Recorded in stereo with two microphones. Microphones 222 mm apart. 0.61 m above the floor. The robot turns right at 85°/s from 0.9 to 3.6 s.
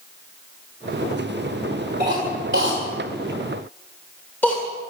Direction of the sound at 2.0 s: 45° right (ahead or behind).